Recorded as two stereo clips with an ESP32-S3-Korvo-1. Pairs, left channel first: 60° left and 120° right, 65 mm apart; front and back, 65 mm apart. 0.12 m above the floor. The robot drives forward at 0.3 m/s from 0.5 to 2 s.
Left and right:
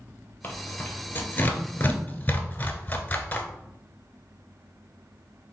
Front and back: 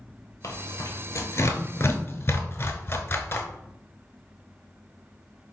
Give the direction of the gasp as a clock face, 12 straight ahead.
No gasp in this recording.